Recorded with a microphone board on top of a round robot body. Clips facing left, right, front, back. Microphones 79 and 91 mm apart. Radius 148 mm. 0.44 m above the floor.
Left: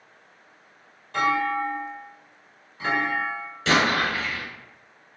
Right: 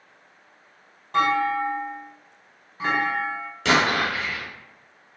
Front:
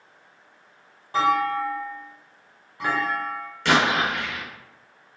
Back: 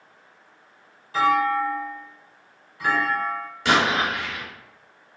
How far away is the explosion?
About 0.9 m.